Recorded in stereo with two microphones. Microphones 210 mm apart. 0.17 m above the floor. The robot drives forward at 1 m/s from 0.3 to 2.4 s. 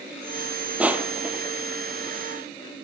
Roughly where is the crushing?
Centre.